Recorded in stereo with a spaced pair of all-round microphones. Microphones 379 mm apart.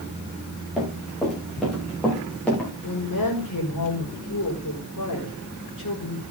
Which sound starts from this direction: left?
A woman speaking, at 2.8 s.